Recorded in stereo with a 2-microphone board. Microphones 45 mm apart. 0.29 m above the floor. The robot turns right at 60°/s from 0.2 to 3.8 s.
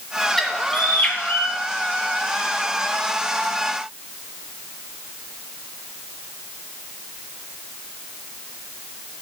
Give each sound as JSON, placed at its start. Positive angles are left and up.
{"t": 0.4, "sound": "a bird", "azimuth_deg": 5, "distance_m": 1.6}